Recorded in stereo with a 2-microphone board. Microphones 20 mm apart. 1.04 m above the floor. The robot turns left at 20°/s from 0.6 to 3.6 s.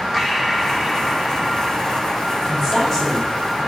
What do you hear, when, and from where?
0.1 s breathing: 15° right, 1.8 m; by 3.5 s 75° right, 1.8 m
2.5 s a woman speaking: centre (ahead or behind), 5.5 m; by 3.7 s 25° left (ahead or behind), 5.5 m